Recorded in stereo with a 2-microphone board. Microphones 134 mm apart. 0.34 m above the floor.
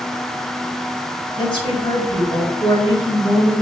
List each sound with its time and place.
1.4 s a woman speaking: 35° left (ahead or behind), 1.0 m